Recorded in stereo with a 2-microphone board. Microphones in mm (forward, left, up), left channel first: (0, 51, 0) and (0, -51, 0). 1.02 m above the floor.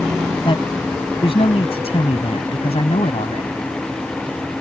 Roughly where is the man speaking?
Left.